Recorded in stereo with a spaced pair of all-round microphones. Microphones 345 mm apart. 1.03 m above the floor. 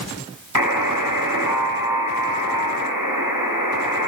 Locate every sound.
0.6 s a buzzer: 65° left (ahead or behind), 6 m